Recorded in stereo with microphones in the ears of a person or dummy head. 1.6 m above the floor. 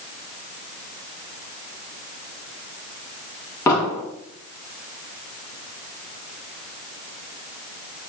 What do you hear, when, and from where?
3.7 s an explosion: 20° left (ahead or behind), 3.5 m